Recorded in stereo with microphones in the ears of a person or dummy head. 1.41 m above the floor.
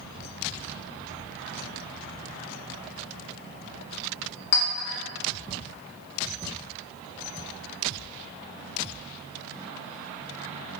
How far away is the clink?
About 1.8 m.